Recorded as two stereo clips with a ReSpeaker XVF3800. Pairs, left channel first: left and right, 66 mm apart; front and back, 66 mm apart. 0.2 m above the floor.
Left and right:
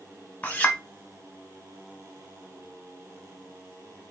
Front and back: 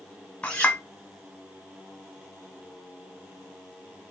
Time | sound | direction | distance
0.4 | a clink | 50° left | 0.6 m